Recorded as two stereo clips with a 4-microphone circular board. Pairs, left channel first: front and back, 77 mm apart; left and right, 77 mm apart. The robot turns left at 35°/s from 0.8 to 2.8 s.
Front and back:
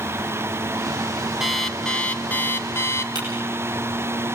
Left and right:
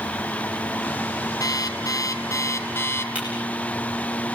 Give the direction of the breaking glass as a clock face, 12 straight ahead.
5 o'clock.